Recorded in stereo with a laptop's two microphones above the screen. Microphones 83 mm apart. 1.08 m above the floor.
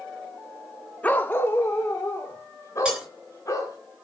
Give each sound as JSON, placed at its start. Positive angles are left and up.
{"t": 1.0, "sound": "a dog barking", "side_deg": 20, "distance_m": 0.7}
{"t": 2.9, "sound": "breaking glass", "side_deg": -10, "distance_m": 3.5}